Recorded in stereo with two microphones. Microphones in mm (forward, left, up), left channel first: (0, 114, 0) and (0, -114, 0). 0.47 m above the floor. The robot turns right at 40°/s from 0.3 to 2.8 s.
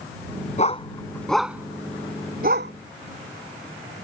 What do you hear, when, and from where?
0.6 s a dog barking: 30° left (ahead or behind); by 2.7 s 55° right (ahead or behind)